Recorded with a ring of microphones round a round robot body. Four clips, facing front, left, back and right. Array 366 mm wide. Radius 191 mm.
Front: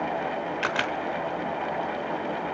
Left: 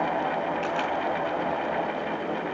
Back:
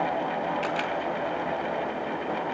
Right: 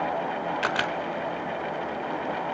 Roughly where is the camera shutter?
Ahead right.